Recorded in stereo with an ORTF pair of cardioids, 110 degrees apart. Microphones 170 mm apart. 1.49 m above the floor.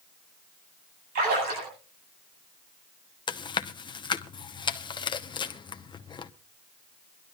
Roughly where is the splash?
Ahead right.